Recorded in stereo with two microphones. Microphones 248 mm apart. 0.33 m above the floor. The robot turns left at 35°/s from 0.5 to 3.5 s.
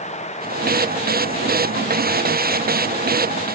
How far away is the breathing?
I don't hear breathing.